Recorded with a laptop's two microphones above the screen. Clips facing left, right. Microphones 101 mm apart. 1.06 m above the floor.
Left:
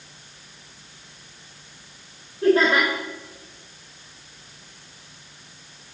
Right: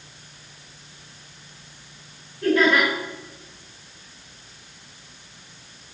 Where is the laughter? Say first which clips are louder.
Left 1 dB; 35° left (ahead or behind), 3.5 m.